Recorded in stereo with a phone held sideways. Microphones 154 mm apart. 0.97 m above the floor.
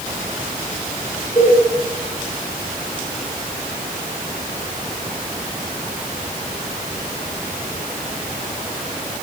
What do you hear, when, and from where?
1.4 s a cowbell: 15° left (ahead or behind), 5 m